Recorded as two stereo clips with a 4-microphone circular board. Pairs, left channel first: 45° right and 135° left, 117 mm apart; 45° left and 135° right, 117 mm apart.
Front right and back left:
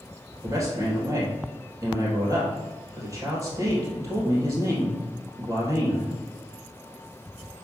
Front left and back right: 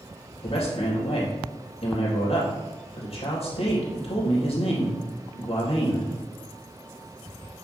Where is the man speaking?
75° left, 3.5 m.